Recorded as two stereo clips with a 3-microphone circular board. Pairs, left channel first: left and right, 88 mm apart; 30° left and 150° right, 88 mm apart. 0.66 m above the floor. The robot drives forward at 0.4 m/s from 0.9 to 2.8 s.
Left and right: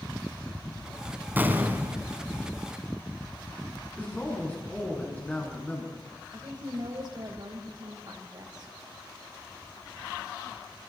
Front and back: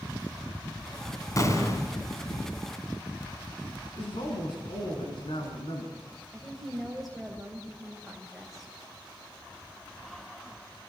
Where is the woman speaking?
60° right, 3.5 m.